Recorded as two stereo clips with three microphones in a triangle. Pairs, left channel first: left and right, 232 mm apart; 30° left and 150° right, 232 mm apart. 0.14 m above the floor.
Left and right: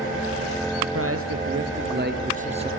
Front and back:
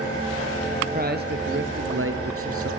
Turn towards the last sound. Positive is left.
turn(degrees=-155)